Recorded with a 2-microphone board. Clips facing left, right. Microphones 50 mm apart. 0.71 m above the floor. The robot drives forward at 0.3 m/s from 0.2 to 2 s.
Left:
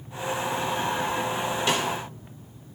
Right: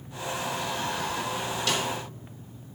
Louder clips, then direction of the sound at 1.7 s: Left 3 dB; 25° left (ahead or behind).